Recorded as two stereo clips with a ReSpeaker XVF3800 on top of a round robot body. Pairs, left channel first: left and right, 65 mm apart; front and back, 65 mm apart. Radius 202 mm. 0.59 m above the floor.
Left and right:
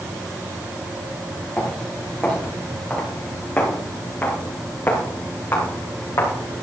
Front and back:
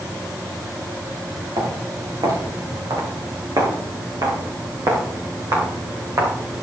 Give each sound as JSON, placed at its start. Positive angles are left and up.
{"t": 1.6, "sound": "footsteps", "azimuth_deg": 165, "distance_m": 6.0}